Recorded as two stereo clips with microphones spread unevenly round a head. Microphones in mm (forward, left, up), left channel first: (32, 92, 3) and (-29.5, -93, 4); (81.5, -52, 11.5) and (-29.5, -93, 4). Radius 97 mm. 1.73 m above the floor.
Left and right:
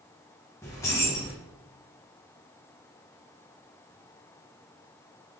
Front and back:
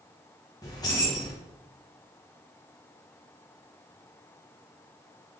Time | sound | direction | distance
0.6 | keys jangling | 5° left | 0.9 m